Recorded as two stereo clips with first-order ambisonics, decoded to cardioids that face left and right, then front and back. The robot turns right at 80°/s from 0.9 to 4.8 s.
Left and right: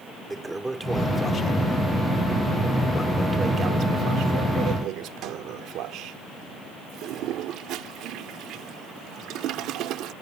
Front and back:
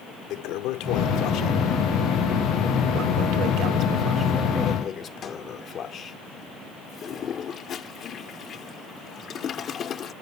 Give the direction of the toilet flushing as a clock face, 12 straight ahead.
12 o'clock.